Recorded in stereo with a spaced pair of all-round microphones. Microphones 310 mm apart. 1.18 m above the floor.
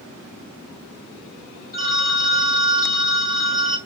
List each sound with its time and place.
1.7 s a phone ringing: 30° left (ahead or behind), 1.3 m